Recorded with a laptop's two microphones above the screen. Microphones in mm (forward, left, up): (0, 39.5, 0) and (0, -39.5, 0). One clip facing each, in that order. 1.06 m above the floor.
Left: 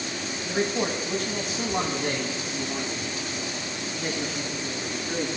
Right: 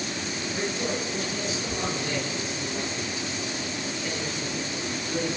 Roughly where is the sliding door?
No sliding door in this recording.